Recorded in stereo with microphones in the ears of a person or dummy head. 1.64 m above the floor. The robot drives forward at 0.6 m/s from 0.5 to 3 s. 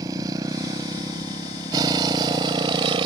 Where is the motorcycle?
20° right (ahead or behind); by 3.1 s 25° right (ahead or behind).